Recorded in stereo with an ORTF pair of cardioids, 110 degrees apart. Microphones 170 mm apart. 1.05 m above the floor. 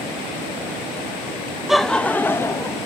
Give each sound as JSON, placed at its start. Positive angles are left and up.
{"t": 1.7, "sound": "laughter", "azimuth_deg": 0, "distance_m": 0.5}